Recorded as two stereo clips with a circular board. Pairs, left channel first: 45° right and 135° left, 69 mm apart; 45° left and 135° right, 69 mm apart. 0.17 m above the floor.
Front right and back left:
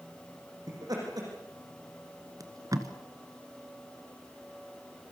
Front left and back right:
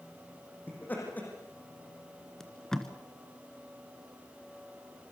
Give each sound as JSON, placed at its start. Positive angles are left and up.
{"t": 0.7, "sound": "laughter", "azimuth_deg": 110, "distance_m": 7.0}
{"t": 2.4, "sound": "tape being pulled", "azimuth_deg": 125, "distance_m": 1.8}